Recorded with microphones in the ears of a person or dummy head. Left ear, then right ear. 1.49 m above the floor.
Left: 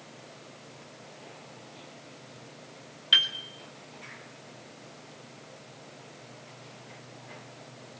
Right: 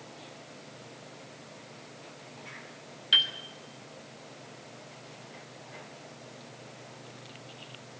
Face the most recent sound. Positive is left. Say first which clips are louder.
# left 1 dB
turn(degrees=15)  # may be behind; listen again after turning